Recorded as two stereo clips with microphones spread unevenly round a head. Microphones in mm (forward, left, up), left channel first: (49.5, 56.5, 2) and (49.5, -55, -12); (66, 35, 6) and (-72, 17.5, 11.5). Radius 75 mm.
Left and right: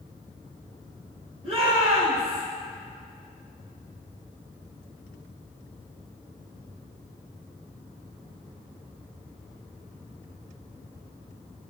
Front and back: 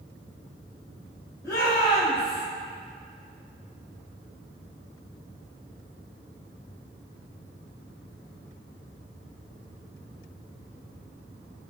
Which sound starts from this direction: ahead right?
A shout, at 1.4 s.